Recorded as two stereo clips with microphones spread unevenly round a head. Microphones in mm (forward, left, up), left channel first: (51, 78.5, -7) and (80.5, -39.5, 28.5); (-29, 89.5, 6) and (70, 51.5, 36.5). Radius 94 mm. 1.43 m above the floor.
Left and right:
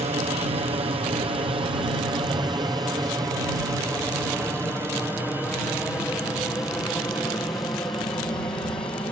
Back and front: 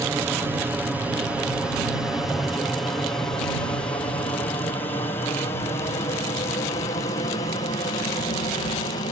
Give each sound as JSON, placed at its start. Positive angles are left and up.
{"t": 0.0, "sound": "an aircraft", "azimuth_deg": -100}